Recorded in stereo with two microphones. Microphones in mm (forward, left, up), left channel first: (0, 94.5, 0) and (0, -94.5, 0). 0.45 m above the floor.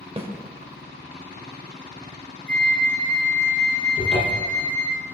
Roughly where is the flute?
Centre.